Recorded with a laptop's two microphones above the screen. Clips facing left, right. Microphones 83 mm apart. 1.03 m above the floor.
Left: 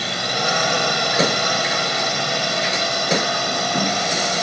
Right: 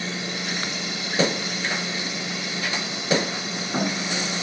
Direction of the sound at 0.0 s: 70° left (ahead or behind).